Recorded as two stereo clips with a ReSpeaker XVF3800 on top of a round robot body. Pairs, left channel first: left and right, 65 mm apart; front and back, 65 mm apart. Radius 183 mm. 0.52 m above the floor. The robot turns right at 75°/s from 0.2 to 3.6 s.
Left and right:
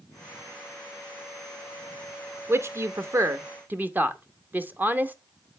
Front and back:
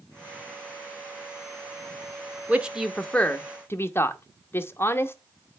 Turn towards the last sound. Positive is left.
turn(degrees=-40)